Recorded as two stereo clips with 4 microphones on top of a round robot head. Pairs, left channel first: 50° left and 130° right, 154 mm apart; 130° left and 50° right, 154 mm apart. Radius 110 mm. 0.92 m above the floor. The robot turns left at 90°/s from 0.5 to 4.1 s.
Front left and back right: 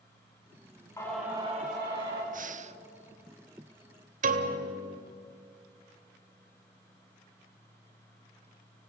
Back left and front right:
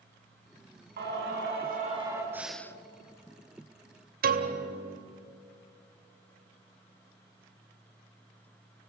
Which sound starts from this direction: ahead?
Singing, at 1.0 s.